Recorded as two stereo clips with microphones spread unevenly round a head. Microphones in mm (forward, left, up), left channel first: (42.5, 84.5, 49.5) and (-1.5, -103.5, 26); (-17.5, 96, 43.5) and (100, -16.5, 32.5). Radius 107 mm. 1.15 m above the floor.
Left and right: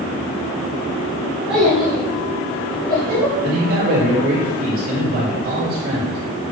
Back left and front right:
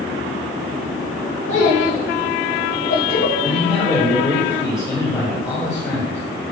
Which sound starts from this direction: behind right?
A man speaking, at 3.4 s.